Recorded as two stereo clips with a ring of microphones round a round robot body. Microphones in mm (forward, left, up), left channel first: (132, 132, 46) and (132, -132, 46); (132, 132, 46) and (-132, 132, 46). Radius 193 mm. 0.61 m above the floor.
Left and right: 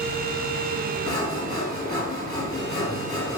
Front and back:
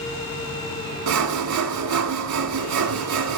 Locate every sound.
1.1 s sawing: 170° left, 0.8 m